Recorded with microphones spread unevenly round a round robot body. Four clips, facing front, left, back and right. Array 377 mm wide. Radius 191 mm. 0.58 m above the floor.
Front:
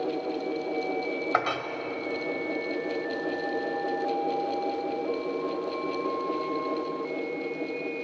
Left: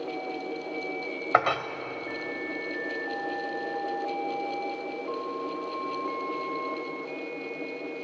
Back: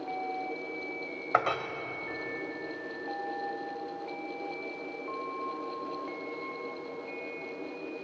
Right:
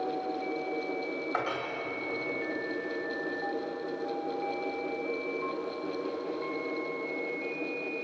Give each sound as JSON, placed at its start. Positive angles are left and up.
{"t": 1.3, "sound": "a clink", "azimuth_deg": 85, "distance_m": 2.5}